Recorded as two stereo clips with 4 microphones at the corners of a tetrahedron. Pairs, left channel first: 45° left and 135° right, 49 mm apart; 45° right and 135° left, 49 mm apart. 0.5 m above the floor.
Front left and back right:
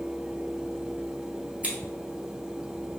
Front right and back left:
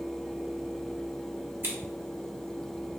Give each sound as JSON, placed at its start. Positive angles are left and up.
{"t": 1.6, "sound": "scissors", "azimuth_deg": 165, "distance_m": 1.0}